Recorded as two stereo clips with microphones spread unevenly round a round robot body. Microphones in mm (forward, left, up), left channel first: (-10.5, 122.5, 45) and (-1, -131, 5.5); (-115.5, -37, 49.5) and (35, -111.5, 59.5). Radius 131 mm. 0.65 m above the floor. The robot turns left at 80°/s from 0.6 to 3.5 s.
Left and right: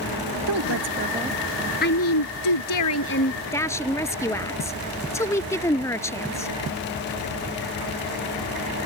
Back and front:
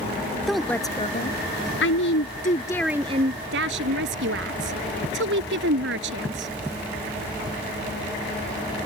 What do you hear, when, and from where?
0.5 s a woman speaking: 115° right; by 6.5 s 10° left